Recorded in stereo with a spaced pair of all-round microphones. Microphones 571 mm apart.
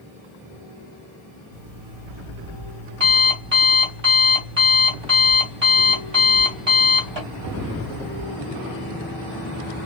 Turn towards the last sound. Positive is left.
turn(degrees=-50)  # may be behind; listen again after turning